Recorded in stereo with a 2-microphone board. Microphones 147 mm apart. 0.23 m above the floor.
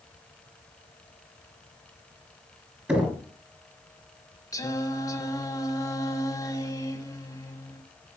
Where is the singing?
20° left (ahead or behind), 1.2 m.